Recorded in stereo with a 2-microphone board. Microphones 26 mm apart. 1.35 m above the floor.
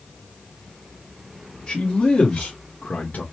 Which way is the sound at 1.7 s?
45° left (ahead or behind).